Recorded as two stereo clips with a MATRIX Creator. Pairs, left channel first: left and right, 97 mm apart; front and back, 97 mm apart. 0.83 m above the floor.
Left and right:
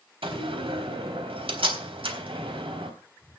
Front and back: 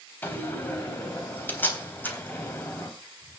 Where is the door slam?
70° right, 3.5 m.